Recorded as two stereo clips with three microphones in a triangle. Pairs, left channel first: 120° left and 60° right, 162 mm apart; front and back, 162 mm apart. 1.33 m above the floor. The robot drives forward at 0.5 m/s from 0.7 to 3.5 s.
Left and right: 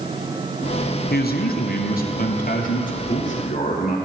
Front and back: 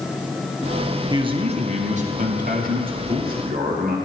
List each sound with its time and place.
1.1 s a man speaking: 120° left, 0.8 m; by 4.0 s 155° left, 1.7 m